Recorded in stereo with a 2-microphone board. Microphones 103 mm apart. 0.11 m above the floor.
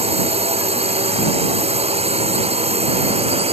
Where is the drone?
75° right (ahead or behind).